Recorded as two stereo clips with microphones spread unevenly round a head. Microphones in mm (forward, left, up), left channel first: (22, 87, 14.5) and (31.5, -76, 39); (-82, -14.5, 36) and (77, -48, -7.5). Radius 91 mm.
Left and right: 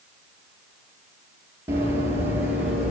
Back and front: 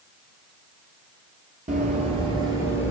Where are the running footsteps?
40° right, 1.7 m; by 2.9 s 125° right, 1.5 m.